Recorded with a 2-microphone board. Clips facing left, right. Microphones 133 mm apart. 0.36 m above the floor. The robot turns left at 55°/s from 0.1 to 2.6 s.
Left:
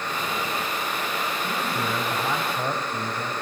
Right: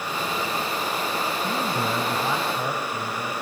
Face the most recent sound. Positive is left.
turn(degrees=170)